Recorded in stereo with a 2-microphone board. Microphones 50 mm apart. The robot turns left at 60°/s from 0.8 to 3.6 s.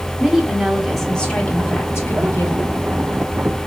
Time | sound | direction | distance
0.2 | a woman speaking | 175° right | 1.8 m